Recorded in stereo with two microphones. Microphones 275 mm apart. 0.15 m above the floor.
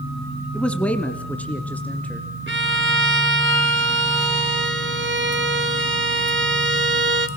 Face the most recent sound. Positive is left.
turn(degrees=-45)  # may be behind; listen again after turning